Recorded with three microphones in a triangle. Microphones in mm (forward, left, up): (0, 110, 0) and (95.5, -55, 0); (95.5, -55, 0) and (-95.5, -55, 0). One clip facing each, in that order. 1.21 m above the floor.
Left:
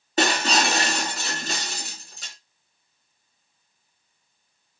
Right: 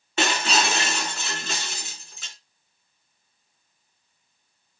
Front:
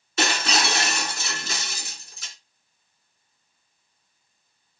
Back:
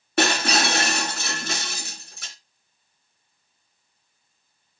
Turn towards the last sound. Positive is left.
turn(degrees=165)